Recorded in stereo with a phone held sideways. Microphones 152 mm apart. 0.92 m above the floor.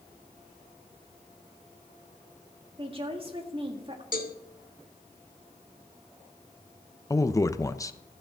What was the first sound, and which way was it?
A woman speaking, 35° right (ahead or behind).